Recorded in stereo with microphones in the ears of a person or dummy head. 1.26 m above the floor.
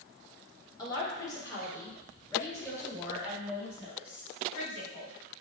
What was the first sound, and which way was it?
A woman speaking, 20° left (ahead or behind).